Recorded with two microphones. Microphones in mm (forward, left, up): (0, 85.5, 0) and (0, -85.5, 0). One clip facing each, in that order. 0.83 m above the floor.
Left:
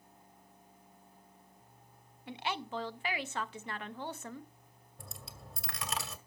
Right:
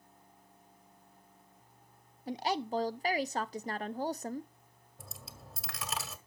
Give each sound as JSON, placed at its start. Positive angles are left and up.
{"t": 2.3, "sound": "a woman speaking", "side_deg": -40, "distance_m": 0.5}
{"t": 5.0, "sound": "a dropped coin", "side_deg": 0, "distance_m": 1.1}